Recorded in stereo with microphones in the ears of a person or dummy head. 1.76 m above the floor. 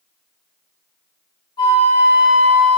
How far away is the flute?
About 0.6 m.